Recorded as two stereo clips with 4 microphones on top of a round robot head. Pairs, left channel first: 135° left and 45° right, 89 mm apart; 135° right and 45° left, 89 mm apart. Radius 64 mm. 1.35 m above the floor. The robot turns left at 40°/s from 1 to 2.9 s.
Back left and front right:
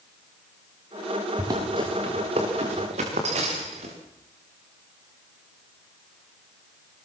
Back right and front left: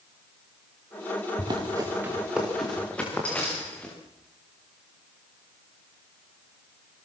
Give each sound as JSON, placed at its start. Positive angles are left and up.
{"t": 1.4, "sound": "running footsteps", "azimuth_deg": 10, "distance_m": 6.0}